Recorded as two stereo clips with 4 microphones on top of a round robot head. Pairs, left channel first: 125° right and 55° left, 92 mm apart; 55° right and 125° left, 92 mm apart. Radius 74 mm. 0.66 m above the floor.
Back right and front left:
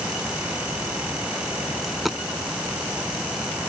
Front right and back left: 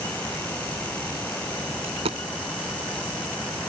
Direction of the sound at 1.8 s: 145° left.